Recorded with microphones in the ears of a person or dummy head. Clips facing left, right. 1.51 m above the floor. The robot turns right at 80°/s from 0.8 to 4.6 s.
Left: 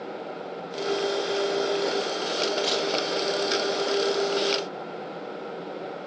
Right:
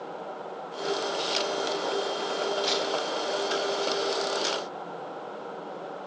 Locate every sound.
2.6 s a camera shutter: 30° left (ahead or behind), 8 m; by 2.9 s 10° left (ahead or behind), 8 m